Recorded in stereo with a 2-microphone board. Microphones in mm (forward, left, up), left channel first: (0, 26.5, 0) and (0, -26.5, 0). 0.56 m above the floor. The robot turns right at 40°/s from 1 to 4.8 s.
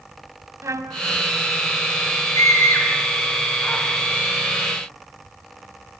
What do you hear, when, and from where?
0.6 s a trumpet: 70° right (ahead or behind), 1.7 m; by 1.0 s 75° right (ahead or behind), 1.7 m
2.4 s a scream: 70° left (ahead or behind), 7 m; by 3.8 s 10° left (ahead or behind), 7 m